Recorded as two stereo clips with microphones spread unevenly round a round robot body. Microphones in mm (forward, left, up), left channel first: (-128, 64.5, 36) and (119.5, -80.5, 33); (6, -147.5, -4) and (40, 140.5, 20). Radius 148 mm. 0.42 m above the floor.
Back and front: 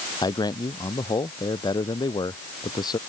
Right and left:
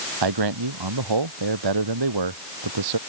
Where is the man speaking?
70° left.